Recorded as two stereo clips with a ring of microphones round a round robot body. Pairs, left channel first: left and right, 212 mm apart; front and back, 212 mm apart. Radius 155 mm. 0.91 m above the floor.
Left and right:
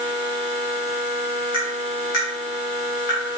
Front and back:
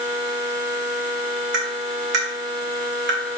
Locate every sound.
1.5 s tapping: 145° left, 3.5 m